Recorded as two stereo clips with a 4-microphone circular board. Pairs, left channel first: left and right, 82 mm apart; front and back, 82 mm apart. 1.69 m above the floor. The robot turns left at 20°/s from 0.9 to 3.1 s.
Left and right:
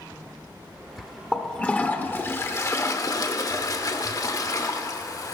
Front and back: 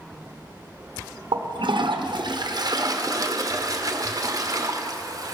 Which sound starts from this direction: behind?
A toilet flushing, at 1.3 s.